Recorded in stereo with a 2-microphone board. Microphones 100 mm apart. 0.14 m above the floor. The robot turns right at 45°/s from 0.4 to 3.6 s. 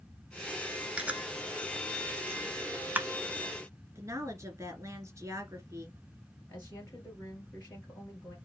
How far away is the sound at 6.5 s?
About 2.5 m.